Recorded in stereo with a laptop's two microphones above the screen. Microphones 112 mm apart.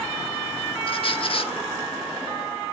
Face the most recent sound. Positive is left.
turn(degrees=55)  # may be behind; listen again after turning